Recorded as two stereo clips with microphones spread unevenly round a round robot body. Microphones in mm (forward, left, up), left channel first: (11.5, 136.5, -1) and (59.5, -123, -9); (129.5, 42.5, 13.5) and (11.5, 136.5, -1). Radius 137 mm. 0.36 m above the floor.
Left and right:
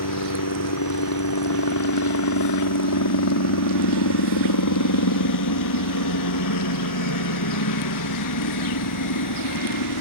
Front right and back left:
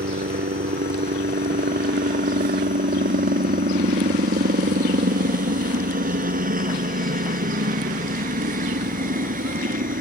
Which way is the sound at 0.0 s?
125° left.